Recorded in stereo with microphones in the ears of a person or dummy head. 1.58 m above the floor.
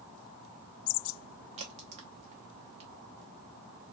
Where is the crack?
30° right (ahead or behind), 0.8 m.